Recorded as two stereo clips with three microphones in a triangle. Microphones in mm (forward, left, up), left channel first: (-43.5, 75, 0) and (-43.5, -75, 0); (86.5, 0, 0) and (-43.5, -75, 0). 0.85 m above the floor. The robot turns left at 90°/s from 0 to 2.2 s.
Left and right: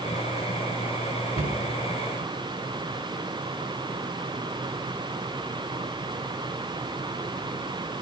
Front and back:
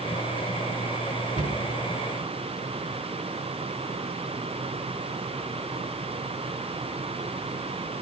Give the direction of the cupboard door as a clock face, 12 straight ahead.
4 o'clock.